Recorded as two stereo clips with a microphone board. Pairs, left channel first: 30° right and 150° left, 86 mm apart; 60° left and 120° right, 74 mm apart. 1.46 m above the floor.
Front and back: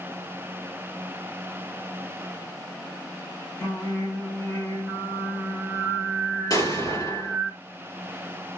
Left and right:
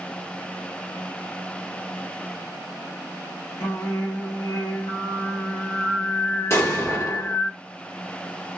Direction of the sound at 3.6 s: 30° left.